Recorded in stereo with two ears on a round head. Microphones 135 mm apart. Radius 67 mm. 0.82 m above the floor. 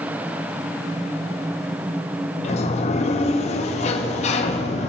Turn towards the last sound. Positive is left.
turn(degrees=45)  # may be behind; listen again after turning